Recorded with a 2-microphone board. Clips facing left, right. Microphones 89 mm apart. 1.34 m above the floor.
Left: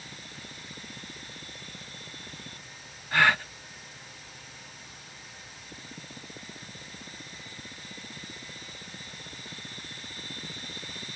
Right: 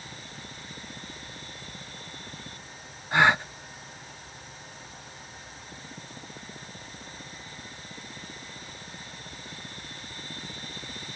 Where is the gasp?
20° right (ahead or behind).